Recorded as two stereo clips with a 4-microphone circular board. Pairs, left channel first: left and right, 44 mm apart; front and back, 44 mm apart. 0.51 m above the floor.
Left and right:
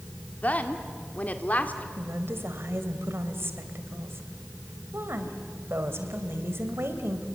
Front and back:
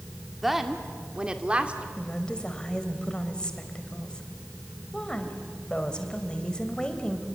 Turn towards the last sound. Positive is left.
turn(degrees=-70)